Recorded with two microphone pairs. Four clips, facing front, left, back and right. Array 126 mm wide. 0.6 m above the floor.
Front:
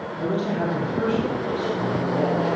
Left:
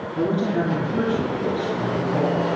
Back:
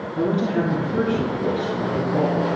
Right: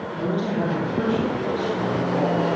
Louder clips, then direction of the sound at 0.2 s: Left 3 dB, back 4 dB; 150° left.